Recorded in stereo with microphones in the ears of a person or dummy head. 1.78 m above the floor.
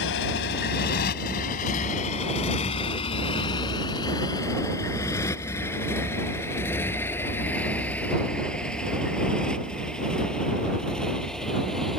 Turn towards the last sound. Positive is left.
turn(degrees=0)  # may be behind; listen again after turning